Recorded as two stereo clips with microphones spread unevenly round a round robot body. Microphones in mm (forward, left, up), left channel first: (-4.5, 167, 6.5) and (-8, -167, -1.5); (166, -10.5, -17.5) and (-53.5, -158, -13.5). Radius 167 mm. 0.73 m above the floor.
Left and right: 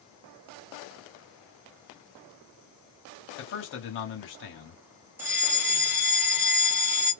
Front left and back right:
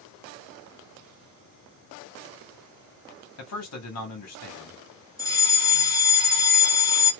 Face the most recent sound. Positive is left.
turn(degrees=-20)